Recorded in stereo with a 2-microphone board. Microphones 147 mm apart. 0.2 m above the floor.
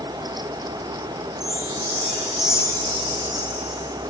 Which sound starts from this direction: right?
A chime, at 1.4 s.